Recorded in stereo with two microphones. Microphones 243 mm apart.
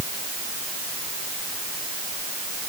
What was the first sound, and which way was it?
Only background noise.